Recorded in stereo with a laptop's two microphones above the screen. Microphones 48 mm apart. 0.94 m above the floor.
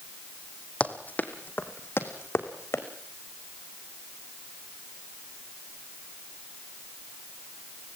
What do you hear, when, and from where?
0.8 s running footsteps: 25° left (ahead or behind), 3 m; by 2.8 s 60° left (ahead or behind), 4 m